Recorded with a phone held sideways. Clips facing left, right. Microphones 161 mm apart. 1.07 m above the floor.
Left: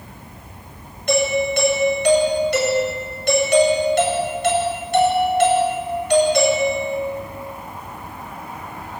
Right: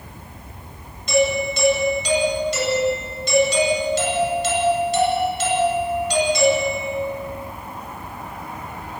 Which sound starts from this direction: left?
A doorbell, at 1.1 s.